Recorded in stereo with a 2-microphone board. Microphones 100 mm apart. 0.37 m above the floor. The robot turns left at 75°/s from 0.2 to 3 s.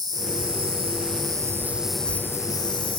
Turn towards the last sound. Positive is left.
turn(degrees=100)